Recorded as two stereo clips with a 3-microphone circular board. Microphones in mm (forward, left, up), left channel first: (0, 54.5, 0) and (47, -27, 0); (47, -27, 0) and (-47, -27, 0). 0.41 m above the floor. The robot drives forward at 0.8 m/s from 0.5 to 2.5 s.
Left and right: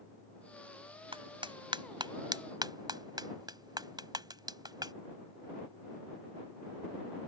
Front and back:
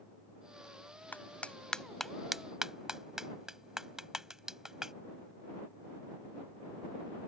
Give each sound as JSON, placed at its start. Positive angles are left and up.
{"t": 1.1, "sound": "a clap", "azimuth_deg": -70}